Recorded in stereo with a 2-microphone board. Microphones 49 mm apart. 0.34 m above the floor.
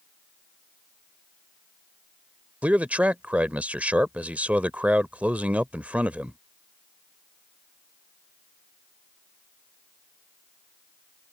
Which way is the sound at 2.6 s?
30° right (ahead or behind).